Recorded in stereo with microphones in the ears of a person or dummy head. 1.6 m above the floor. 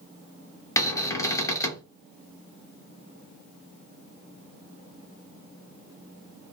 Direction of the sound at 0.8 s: 10° left (ahead or behind).